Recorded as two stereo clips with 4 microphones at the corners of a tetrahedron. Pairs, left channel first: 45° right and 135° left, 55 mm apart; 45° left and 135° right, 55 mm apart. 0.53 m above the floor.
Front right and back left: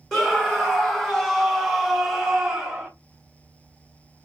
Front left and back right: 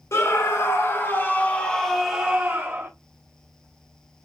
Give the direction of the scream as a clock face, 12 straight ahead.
11 o'clock.